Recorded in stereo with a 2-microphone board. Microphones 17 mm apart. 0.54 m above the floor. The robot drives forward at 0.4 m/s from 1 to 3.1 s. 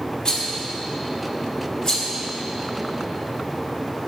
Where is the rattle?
45° left (ahead or behind), 1.7 m; by 2.1 s 40° left (ahead or behind), 1.9 m.